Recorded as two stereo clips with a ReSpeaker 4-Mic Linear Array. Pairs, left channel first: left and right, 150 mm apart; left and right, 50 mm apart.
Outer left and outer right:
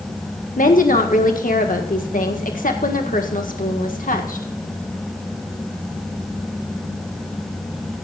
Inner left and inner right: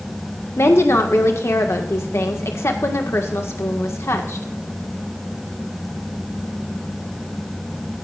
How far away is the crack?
I don't hear a crack.